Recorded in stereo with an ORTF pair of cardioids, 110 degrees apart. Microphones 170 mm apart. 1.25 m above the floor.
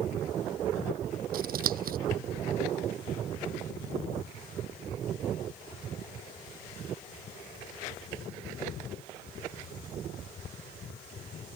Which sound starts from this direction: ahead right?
Scissors, at 1.3 s.